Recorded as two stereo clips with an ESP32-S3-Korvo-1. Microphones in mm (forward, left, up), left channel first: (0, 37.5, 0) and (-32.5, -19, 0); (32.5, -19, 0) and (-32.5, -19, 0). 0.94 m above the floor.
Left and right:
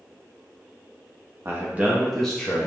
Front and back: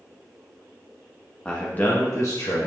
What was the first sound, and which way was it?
A man speaking, 75° right.